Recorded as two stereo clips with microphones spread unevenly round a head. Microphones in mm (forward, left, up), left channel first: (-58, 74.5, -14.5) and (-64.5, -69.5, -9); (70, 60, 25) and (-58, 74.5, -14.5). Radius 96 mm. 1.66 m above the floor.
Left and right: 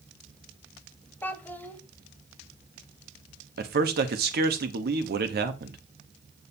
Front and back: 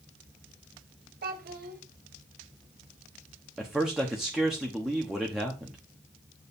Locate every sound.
1.2 s a child speaking: 165° left, 1.4 m
3.6 s a man speaking: 100° right, 1.0 m